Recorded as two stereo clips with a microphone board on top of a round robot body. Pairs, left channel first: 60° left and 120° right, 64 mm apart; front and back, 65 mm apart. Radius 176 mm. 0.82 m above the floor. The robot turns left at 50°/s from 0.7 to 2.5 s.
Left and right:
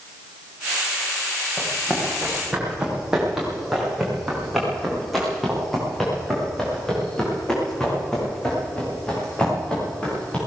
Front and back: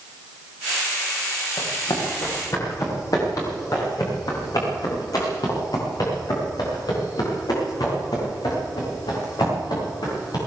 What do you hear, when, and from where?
1.6 s running footsteps: straight ahead, 5.5 m; by 10.4 s 15° right, 10 m